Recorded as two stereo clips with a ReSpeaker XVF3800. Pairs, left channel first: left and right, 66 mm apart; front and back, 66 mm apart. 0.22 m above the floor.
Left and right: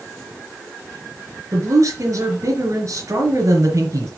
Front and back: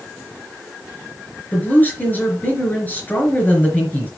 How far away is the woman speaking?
About 4 m.